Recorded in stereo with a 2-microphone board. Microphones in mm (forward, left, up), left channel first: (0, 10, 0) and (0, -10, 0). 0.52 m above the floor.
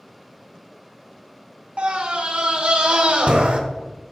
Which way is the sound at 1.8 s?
45° right (ahead or behind).